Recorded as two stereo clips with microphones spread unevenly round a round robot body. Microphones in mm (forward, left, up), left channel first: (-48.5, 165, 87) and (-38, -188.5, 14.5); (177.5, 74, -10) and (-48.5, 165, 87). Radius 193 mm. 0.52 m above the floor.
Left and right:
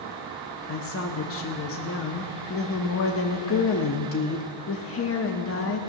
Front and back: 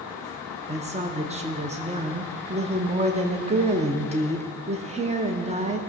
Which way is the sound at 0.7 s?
75° left.